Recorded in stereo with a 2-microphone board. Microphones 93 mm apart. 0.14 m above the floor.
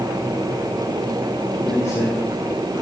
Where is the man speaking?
30° left (ahead or behind), 5.5 m.